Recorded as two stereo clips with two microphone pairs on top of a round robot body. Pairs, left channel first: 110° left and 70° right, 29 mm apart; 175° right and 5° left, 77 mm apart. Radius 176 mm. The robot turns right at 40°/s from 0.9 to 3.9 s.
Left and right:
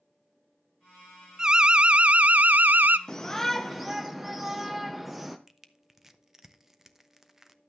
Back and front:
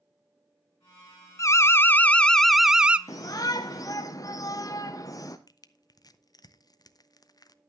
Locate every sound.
1.4 s an alarm: 140° right, 0.8 m; by 3.0 s 75° right, 0.8 m
3.1 s a shout: 170° left, 1.1 m; by 5.4 s 160° right, 1.1 m
5.5 s crushing: 150° right, 1.1 m